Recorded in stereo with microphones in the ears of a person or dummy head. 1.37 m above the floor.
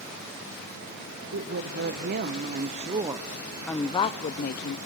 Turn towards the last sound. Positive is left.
turn(degrees=60)  # may be behind; listen again after turning